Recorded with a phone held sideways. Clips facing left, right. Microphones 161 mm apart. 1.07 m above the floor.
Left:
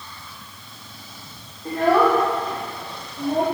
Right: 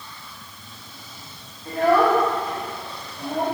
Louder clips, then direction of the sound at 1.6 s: Even; 75° left (ahead or behind).